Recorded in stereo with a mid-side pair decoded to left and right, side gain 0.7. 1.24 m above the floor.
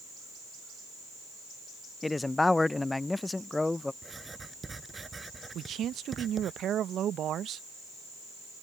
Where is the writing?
20° right.